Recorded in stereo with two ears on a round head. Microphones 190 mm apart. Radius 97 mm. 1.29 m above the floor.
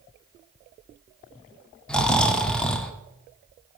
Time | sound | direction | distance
1.9 | snoring | 5° left (ahead or behind) | 0.9 m